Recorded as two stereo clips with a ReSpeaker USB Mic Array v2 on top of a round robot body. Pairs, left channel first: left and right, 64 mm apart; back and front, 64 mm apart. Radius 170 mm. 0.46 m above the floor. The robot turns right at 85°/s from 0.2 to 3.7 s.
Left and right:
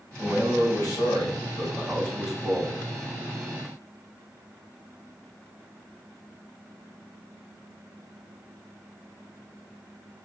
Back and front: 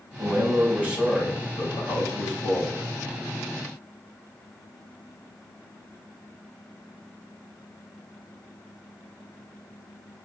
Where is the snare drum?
I don't hear a snare drum.